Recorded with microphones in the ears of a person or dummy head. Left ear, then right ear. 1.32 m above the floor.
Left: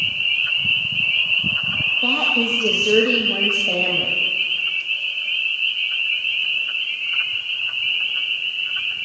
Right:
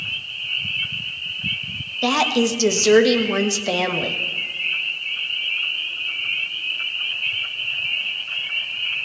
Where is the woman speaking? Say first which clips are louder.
Right 4 dB; 70° right (ahead or behind), 1.3 m.